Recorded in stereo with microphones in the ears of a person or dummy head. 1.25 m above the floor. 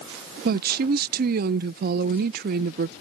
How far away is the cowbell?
I don't hear a cowbell.